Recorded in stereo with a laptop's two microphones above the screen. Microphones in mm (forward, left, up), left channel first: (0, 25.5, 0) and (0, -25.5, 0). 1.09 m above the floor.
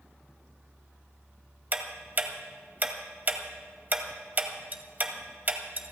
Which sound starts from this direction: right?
Ticking, at 1.7 s.